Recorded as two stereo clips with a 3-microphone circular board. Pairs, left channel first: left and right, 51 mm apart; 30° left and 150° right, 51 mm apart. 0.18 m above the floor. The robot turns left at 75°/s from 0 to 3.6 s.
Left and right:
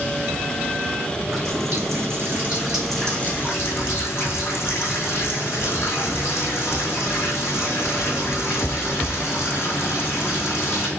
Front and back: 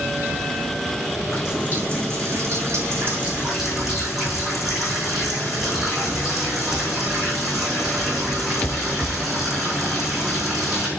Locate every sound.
1.3 s a running tap: 60° right, 6.5 m; by 10.9 s 125° left, 6.5 m